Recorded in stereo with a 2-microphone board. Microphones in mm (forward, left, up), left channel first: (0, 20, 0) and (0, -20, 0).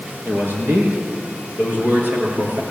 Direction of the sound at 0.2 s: 60° right (ahead or behind).